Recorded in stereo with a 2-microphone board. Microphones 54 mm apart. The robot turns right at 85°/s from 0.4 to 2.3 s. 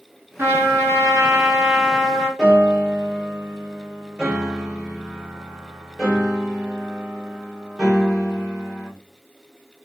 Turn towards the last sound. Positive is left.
turn(degrees=-15)  # may be behind; listen again after turning